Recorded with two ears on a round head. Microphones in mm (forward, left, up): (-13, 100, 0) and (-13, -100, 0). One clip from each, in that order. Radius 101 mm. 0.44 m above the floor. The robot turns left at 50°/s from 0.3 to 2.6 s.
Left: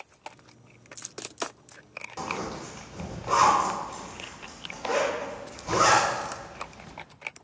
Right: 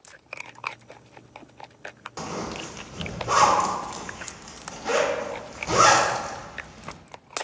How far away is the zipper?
About 0.6 m.